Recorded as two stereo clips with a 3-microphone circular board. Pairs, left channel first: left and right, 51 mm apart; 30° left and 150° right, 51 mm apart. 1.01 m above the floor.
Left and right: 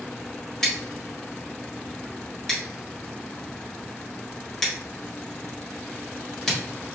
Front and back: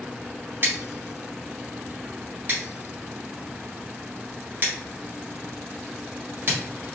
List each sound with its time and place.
0.6 s scissors: 170° left, 1.4 m